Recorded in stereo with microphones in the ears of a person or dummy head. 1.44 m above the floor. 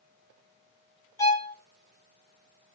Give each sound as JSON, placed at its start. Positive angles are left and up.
{"t": 1.2, "sound": "a violin", "side_deg": 20, "distance_m": 1.2}